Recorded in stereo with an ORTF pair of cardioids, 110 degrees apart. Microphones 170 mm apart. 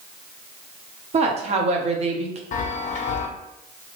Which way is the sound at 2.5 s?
45° left.